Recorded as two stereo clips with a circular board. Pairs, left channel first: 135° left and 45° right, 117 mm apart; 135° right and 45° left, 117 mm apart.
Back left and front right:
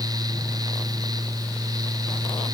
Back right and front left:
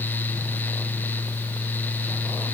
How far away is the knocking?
I don't hear knocking.